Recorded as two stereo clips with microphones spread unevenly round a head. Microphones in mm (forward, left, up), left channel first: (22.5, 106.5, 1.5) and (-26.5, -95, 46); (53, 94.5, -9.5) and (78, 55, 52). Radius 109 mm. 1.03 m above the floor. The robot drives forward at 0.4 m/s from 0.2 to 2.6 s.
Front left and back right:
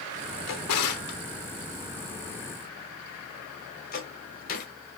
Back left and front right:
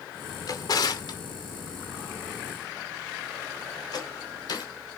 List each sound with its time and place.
0.5 s a drawer: 85° left, 1.0 m; by 4.7 s 130° left, 1.3 m